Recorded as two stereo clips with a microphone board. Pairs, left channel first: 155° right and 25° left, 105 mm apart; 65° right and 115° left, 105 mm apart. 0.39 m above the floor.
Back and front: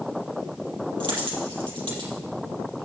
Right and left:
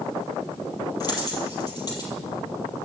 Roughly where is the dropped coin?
Ahead.